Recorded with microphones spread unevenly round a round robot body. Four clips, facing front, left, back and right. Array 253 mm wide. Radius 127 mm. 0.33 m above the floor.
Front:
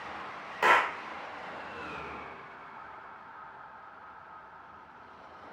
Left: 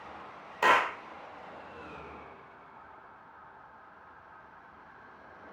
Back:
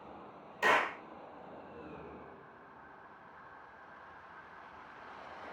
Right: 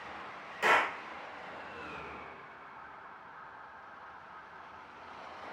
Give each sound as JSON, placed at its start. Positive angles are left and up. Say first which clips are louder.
{"t": 0.6, "sound": "a clap", "louder": "left 3 dB, front 5 dB", "azimuth_deg": 60, "distance_m": 1.1}